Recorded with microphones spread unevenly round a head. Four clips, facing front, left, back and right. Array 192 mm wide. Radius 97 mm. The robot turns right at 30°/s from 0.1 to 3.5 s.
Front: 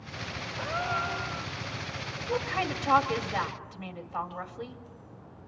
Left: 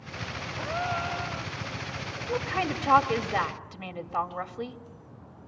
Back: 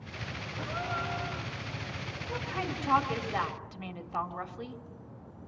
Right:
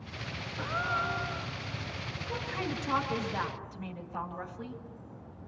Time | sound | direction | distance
0.6 | a gasp | 50° left | 3 m
2.3 | a woman speaking | 50° left | 3 m